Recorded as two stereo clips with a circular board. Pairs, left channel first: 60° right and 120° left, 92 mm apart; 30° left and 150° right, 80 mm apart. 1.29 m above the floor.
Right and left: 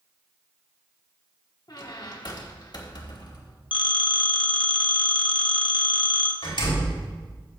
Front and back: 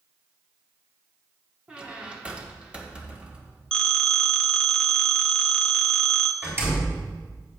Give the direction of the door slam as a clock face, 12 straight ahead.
3 o'clock.